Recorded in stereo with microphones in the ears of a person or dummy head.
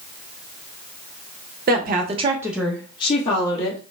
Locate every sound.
1.7 s a woman speaking: 50° right (ahead or behind), 0.8 m; by 3.8 s 45° left (ahead or behind), 0.9 m